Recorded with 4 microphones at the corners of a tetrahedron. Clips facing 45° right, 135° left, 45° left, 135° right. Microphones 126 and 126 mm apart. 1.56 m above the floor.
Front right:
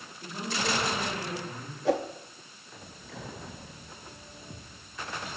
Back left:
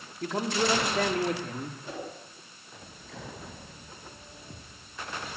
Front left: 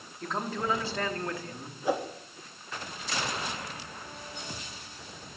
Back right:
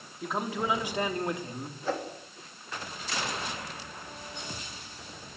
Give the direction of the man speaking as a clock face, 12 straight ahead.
7 o'clock.